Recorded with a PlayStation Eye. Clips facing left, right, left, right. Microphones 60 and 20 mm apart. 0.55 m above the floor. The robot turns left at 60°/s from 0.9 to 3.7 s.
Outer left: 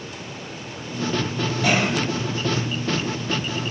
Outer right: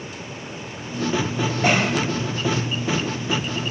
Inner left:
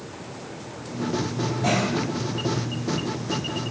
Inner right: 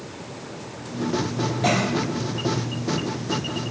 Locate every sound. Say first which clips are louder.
1.6 s a cough: outer right 1 dB, inner right 2 dB; 35° right (ahead or behind), 1.5 m